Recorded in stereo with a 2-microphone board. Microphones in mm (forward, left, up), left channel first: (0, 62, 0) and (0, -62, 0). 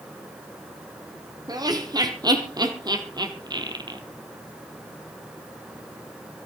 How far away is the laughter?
About 4.5 m.